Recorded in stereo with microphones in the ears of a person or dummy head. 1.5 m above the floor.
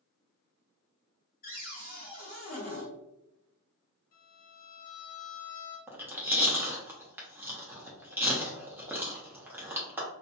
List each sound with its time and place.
1.4 s a cupboard door: 45° left (ahead or behind), 0.8 m
4.1 s a violin: 50° left (ahead or behind), 1.2 m
5.9 s chewing: 10° right (ahead or behind), 0.5 m